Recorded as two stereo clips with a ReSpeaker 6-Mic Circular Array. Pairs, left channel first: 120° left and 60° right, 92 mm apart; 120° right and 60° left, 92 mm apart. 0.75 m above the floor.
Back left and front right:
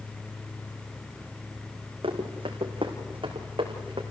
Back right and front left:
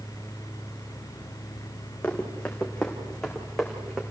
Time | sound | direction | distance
2.0 | running footsteps | 45° right | 3.5 m